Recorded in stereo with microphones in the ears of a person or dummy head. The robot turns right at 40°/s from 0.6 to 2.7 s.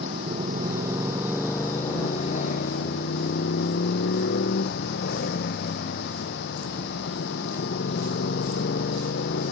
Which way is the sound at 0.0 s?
30° right.